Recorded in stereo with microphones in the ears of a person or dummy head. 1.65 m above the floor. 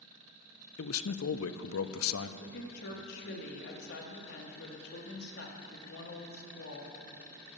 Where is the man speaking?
70° left (ahead or behind), 0.5 m.